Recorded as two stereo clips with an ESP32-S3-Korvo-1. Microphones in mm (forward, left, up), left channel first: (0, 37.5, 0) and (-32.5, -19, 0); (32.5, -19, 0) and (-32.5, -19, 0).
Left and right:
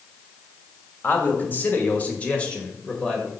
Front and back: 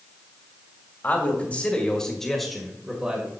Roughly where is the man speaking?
Ahead left.